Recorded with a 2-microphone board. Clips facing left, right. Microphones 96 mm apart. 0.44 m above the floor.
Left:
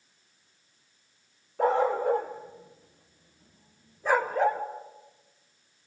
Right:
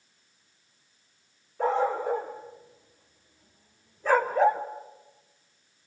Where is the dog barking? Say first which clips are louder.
Left 2 dB; 70° left (ahead or behind), 4.5 m; by 4.6 s 10° right (ahead or behind), 2.5 m.